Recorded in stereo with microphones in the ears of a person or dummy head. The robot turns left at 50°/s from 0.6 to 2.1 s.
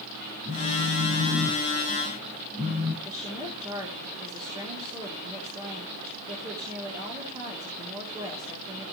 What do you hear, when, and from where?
0.5 s a phone buzzing: 55° right, 3.5 m; by 2.9 s 130° right, 3.5 m
3.0 s a woman speaking: 25° right (ahead or behind), 3.5 m